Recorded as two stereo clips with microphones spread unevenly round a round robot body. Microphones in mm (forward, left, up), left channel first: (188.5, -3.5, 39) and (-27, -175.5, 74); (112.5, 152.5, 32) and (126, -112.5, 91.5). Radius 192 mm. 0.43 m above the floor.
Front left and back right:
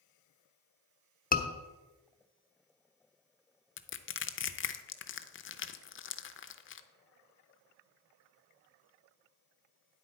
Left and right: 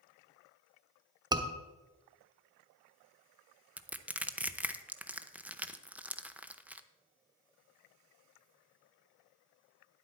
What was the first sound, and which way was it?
A scream, 5° right.